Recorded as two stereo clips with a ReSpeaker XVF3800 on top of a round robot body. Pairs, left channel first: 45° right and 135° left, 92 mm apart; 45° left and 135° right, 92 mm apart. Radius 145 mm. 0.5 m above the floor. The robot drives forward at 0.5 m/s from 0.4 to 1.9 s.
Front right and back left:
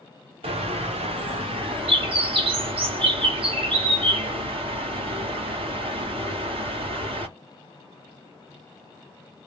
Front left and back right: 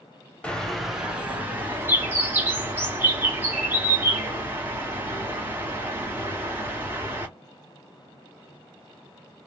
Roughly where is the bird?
Behind left.